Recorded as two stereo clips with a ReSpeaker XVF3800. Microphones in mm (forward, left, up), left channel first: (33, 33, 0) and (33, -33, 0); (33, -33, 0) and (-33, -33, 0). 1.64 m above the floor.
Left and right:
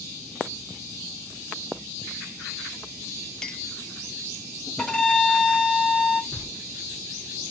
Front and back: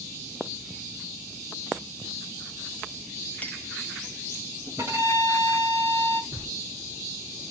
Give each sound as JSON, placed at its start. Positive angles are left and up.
{"t": 3.4, "sound": "a clink", "azimuth_deg": 25, "distance_m": 0.5}
{"t": 4.8, "sound": "a violin", "azimuth_deg": 170, "distance_m": 1.9}
{"t": 6.3, "sound": "knocking", "azimuth_deg": -170, "distance_m": 1.7}